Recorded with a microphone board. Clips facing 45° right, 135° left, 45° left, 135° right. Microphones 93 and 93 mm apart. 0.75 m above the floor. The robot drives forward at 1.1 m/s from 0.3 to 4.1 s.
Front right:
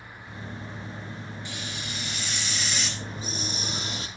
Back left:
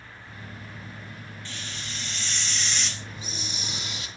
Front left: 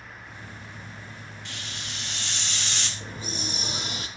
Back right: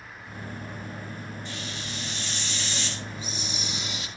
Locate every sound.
1.4 s a hiss: 30° left, 5.5 m; by 2.9 s 40° left, 4.5 m
3.0 s a hiss: 5° left, 5.5 m